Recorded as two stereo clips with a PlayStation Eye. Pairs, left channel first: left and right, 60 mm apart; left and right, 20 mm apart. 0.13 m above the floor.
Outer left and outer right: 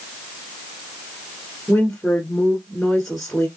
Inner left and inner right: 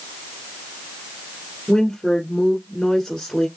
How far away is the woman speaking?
About 1.2 m.